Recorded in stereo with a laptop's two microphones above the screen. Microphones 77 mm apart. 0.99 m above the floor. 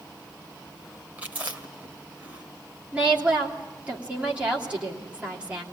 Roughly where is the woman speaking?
Centre.